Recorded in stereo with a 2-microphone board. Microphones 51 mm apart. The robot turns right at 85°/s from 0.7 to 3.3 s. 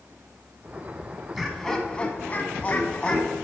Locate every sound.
1.4 s laughter: 5° right, 1.2 m; by 3.3 s 165° left, 1.2 m